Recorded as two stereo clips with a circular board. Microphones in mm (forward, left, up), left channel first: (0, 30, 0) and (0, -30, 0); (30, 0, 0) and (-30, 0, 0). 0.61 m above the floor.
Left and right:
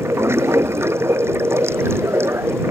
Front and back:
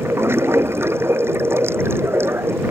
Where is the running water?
135° right.